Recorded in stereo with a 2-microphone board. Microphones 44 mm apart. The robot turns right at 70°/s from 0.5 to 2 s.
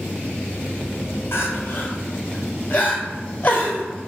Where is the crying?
65° left (ahead or behind), 0.9 m; by 3.9 s 45° left (ahead or behind), 0.9 m.